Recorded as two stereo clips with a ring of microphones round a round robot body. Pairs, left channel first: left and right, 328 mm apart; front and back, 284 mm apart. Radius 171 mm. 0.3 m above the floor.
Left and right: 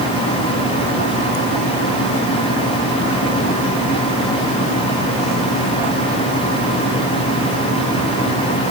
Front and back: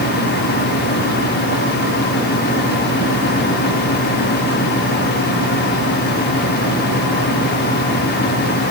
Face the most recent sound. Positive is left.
No sound to turn to.